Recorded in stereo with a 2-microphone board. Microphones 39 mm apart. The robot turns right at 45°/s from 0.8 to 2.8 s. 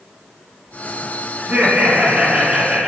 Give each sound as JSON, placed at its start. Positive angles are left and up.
{"t": 1.4, "sound": "laughter", "azimuth_deg": -75, "distance_m": 1.5}